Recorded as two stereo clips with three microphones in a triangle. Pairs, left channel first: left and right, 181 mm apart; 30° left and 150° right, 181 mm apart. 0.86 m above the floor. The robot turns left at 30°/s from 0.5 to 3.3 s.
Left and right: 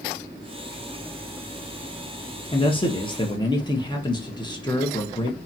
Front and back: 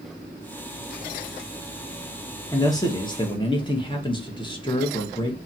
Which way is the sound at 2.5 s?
80° left.